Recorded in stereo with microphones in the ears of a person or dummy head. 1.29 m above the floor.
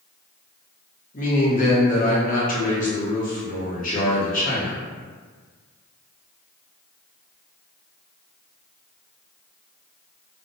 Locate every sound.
1.1 s a man speaking: 40° left (ahead or behind), 0.8 m